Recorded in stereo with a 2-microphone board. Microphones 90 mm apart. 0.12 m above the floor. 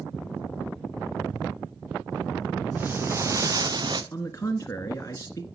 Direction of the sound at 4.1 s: 30° left (ahead or behind).